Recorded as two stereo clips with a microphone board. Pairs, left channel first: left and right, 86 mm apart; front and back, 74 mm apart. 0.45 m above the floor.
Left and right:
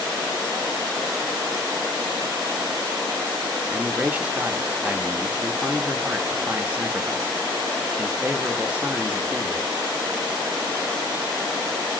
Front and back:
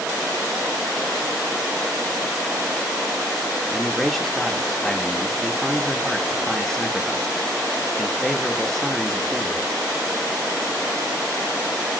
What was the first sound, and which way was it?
A man speaking, 75° right.